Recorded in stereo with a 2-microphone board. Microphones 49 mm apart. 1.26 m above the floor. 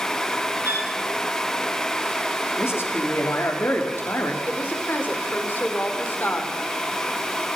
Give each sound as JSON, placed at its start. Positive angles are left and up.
{"t": 0.6, "sound": "a violin", "side_deg": -60, "distance_m": 8.5}
{"t": 2.6, "sound": "a man speaking", "side_deg": 55, "distance_m": 3.5}
{"t": 4.5, "sound": "a woman speaking", "side_deg": 45, "distance_m": 4.0}